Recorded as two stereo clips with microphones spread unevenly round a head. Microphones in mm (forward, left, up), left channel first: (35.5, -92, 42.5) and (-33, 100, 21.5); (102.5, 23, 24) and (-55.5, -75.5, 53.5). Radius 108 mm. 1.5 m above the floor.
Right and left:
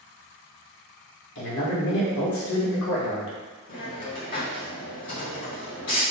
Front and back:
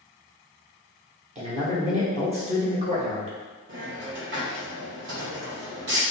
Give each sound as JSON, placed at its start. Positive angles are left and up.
{"t": 1.4, "sound": "a man speaking", "azimuth_deg": -90, "distance_m": 1.3}
{"t": 3.7, "sound": "a hiss", "azimuth_deg": -120, "distance_m": 1.9}